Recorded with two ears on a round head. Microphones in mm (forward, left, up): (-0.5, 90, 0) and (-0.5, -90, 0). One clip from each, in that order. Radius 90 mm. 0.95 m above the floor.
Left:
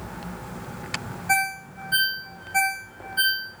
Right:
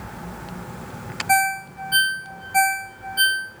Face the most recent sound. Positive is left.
turn(degrees=-10)  # may be behind; listen again after turning